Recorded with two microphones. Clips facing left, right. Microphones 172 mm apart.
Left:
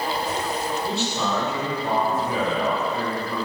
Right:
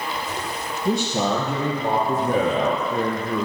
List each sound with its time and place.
0.8 s a man speaking: 40° right (ahead or behind), 4.5 m; by 3.5 s 50° right (ahead or behind), 3 m